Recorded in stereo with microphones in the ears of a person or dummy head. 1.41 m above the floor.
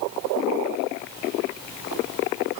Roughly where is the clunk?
No clunk in this recording.